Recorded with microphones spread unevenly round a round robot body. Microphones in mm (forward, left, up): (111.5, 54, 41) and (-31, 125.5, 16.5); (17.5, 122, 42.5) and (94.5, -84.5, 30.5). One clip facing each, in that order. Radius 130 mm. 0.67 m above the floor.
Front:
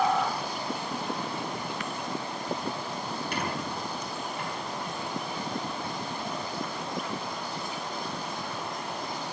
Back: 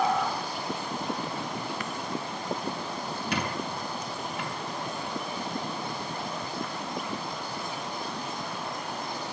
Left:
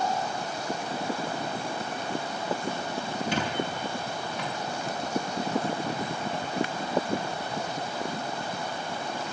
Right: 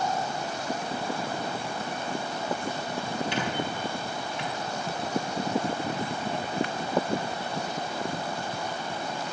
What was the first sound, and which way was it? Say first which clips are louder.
A squeak: back 2 dB, left 1 dB; 165° left.